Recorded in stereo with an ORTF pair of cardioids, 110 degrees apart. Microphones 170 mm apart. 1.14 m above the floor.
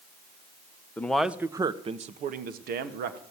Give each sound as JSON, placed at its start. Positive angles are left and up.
{"t": 1.0, "sound": "a man speaking", "azimuth_deg": 10, "distance_m": 1.1}